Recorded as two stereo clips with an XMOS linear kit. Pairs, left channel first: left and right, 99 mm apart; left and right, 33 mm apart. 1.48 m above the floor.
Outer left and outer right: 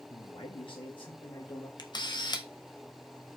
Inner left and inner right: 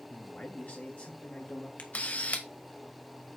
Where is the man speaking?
65° left (ahead or behind), 2.5 m; by 1.7 s 45° left (ahead or behind), 2.5 m.